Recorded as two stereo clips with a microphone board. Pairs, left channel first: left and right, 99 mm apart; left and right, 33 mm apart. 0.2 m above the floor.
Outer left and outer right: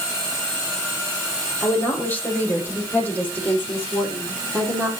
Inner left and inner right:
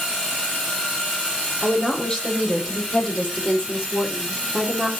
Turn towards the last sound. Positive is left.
turn(degrees=20)  # may be behind; listen again after turning